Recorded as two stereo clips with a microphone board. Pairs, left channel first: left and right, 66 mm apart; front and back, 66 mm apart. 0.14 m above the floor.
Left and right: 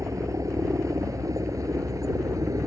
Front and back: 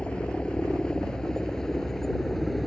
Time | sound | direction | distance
0.0 | a helicopter | 70° right | ?